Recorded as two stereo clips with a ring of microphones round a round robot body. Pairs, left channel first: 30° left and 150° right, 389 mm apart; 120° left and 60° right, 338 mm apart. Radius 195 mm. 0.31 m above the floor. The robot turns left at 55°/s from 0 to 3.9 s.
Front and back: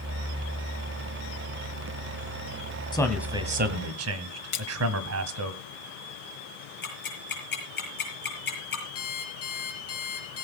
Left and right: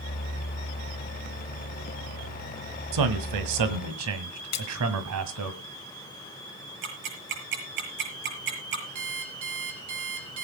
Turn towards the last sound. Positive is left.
turn(degrees=-25)